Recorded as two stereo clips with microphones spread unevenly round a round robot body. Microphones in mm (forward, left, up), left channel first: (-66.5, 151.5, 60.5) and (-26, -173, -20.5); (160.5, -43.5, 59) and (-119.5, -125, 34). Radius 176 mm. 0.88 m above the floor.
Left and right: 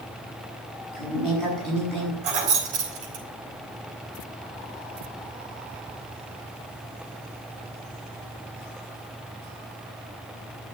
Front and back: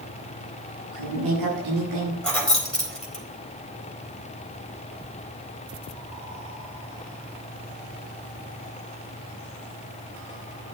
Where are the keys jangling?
70° right, 4 m.